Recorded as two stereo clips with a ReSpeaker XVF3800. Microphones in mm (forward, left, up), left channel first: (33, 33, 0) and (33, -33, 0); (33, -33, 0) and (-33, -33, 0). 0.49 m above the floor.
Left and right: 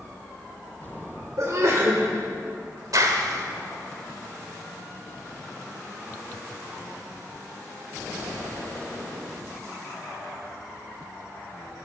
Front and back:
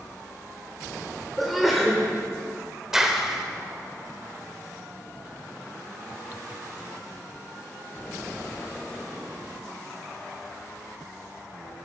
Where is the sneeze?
90° right, 2 m.